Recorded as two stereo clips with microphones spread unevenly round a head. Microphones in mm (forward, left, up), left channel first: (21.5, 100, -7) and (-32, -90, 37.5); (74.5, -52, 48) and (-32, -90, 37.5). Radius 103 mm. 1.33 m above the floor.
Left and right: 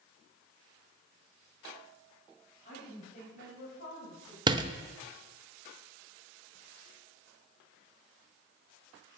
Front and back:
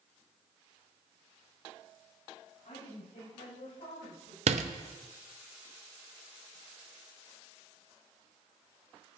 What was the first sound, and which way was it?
A woman speaking, 25° left.